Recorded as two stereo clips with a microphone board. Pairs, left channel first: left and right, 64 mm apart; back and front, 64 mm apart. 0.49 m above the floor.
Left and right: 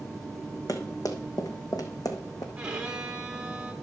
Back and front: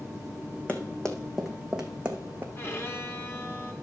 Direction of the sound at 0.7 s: 110° left.